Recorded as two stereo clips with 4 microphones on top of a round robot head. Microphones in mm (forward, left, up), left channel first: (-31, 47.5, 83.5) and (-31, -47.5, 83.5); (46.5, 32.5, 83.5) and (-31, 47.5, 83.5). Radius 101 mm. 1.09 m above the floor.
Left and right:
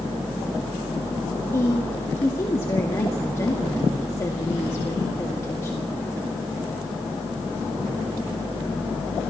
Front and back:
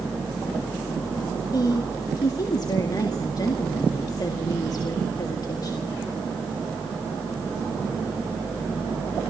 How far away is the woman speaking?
About 2 m.